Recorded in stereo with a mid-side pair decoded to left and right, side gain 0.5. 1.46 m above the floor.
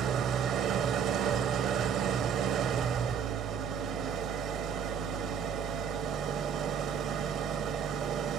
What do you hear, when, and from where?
0.0 s an engine running: 65° right, 1.0 m